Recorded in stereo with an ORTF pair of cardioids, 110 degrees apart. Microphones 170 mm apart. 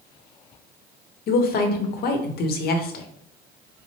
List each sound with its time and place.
1.3 s a woman speaking: 60° left, 0.8 m